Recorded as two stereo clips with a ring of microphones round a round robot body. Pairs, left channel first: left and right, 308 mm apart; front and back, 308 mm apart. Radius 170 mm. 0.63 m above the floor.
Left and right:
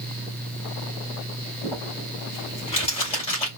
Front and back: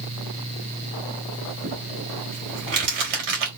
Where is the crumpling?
160° left, 2.5 m.